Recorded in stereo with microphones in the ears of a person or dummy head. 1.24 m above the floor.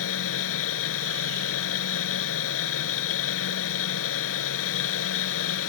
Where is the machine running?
75° left (ahead or behind).